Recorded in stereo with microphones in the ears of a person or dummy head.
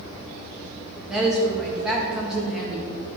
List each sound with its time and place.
1.1 s a woman speaking: centre (ahead or behind), 1.7 m